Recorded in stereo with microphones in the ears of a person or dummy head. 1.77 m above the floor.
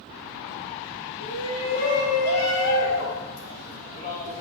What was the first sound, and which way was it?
A shout, 75° left (ahead or behind).